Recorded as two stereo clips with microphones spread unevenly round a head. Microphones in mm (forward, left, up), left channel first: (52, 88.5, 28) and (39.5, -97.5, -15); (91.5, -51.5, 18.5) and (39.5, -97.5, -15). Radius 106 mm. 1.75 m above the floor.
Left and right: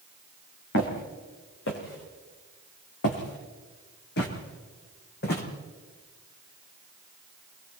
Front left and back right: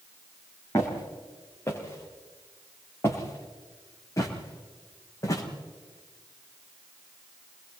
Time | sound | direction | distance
0.7 | footsteps | 105° left | 6 m